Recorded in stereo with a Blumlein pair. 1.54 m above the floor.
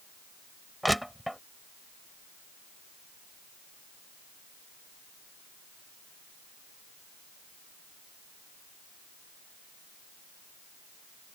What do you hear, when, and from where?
0.8 s crushing: straight ahead